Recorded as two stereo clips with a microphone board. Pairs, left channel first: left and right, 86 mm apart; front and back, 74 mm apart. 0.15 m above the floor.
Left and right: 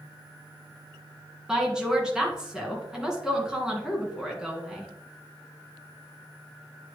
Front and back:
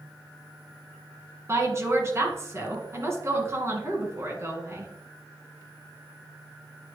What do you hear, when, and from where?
1.5 s a woman speaking: 170° right, 2.0 m